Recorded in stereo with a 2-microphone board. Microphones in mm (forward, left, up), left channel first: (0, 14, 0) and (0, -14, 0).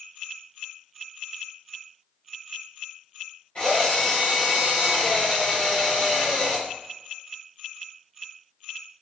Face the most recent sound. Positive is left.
turn(degrees=45)  # may be behind; listen again after turning